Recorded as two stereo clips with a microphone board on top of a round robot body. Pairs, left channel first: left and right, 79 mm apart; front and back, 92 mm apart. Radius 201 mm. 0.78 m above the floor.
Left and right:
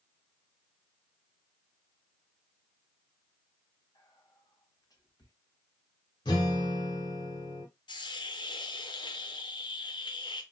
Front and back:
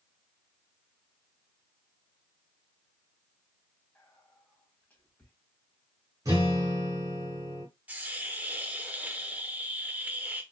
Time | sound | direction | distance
4.0 | whispering | 65° left | 1.7 m
6.2 | a guitar | 120° left | 0.7 m
7.9 | a hiss | 105° left | 0.8 m